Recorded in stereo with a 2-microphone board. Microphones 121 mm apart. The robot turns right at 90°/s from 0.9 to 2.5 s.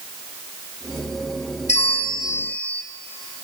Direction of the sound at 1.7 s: 95° left.